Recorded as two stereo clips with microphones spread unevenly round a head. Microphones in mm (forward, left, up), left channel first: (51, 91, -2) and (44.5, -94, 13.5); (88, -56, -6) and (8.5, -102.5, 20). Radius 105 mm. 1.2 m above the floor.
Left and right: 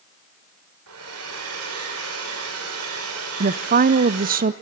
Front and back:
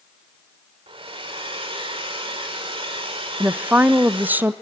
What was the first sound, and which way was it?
A hair dryer, 120° right.